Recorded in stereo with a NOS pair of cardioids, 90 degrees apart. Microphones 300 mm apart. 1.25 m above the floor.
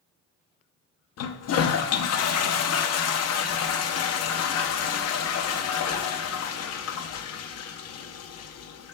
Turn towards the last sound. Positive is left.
turn(degrees=60)